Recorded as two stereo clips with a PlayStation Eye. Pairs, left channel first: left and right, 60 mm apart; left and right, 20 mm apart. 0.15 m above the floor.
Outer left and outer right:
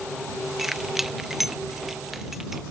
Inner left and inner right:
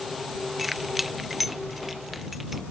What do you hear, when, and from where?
0.6 s keys jangling: 5° right (ahead or behind)